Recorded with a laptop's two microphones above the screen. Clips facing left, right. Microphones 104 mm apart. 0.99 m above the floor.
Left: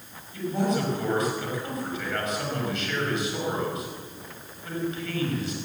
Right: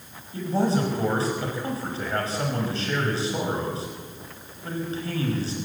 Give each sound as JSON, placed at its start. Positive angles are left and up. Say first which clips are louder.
{"t": 0.3, "sound": "a man speaking", "louder": "right 2 dB", "side_deg": -30, "distance_m": 5.5}